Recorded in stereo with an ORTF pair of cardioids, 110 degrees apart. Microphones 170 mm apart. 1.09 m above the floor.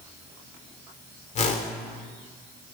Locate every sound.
1.4 s a whoosh: 40° left, 2.5 m